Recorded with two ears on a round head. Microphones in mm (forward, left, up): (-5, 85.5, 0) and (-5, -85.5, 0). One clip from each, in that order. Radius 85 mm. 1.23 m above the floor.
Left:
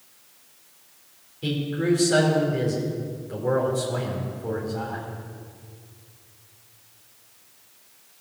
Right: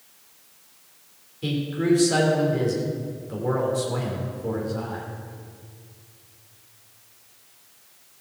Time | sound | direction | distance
1.4 | a man speaking | 5° right (ahead or behind) | 3 m